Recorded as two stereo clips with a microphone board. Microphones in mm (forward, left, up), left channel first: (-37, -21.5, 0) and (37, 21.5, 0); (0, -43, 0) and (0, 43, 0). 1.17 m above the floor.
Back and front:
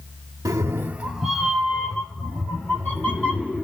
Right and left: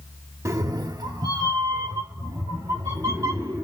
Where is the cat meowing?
55° left, 0.9 m; by 3.6 s 140° left, 3.5 m.